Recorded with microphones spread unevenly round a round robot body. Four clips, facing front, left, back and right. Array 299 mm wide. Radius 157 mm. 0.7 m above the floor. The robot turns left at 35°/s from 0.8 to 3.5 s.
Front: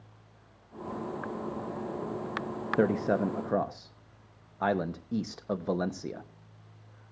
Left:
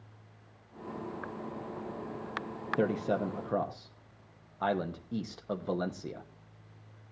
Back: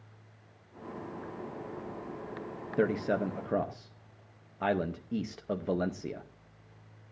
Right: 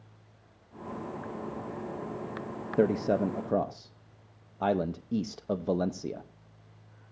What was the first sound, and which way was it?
A man speaking, 40° right.